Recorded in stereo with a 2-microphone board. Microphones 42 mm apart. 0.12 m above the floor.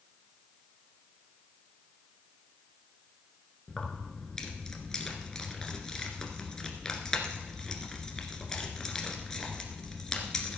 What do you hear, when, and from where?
3.7 s keys jangling: 15° left (ahead or behind), 1.5 m